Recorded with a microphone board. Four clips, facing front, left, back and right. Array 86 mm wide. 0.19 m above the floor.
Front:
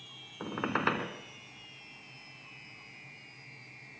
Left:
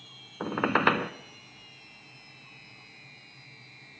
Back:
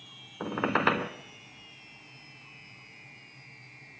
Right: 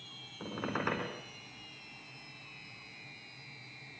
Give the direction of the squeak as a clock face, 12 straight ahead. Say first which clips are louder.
Left 11 dB, back 5 dB; 8 o'clock.